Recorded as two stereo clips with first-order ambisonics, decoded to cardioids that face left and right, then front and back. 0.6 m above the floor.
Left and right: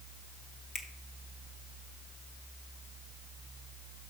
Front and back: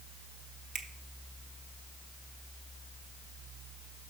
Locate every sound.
0.8 s a finger snap: 150° left, 0.8 m